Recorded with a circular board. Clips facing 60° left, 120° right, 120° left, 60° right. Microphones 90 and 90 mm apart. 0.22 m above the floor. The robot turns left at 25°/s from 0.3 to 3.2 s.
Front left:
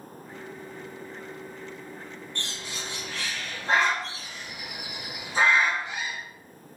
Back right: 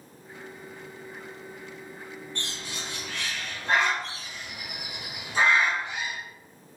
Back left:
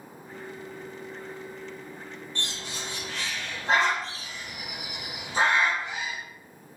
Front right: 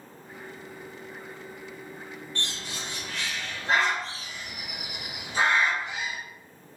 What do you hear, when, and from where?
2.4 s a bird: 165° left, 1.9 m; by 6.2 s 145° left, 1.9 m